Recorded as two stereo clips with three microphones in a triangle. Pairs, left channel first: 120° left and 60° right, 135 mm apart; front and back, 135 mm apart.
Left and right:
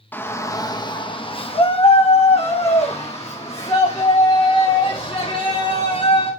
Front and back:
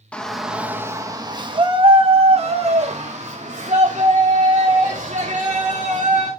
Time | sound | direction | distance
0.1 | a shout | 70° left | 0.9 m